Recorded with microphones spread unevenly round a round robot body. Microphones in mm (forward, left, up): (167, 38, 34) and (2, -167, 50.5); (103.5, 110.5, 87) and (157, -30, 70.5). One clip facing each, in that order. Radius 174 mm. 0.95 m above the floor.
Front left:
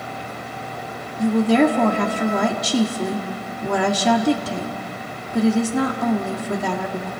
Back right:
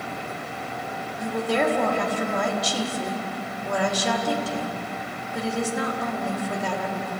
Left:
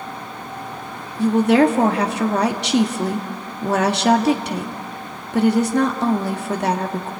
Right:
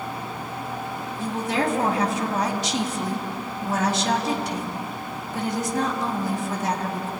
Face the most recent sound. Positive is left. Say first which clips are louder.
# front left 9 dB, left 11 dB
turn(degrees=80)